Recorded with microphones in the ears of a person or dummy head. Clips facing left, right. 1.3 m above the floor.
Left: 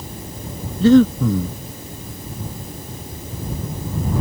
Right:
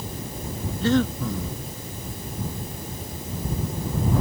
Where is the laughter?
I don't hear laughter.